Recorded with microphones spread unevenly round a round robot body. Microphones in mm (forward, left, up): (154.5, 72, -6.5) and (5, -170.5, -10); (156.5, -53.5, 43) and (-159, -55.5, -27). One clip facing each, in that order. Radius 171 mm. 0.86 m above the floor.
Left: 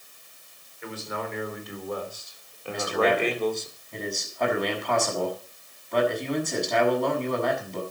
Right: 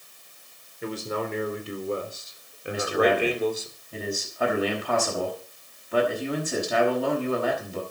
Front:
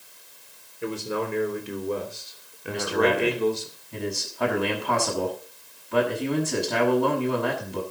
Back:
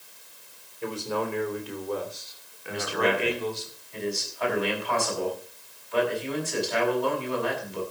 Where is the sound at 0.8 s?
75° right, 3.5 m; by 3.7 s 35° right, 3 m.